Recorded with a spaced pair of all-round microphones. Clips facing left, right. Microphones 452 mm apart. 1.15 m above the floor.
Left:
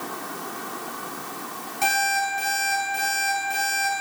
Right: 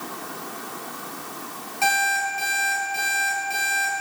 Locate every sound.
1.8 s an alarm clock: 35° left (ahead or behind), 5 m